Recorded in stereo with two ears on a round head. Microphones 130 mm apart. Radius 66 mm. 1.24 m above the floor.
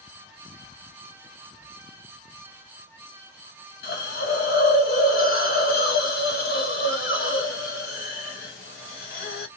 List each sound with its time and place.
3.8 s a hiss: 80° left, 1.2 m